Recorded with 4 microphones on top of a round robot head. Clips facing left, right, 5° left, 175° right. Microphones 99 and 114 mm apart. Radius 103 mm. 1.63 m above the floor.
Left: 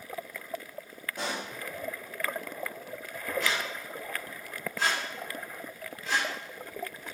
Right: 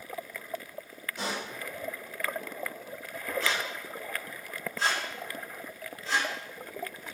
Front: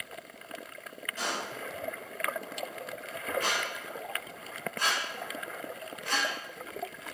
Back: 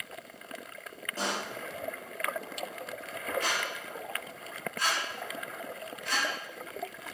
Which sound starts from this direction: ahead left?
A squeak, at 3.4 s.